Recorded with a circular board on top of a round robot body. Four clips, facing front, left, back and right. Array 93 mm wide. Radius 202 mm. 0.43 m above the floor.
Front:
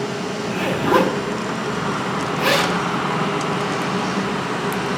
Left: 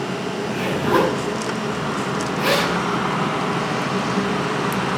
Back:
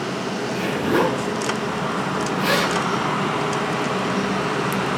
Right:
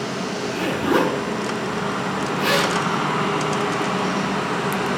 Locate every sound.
0.4 s a zipper: 20° left, 4.5 m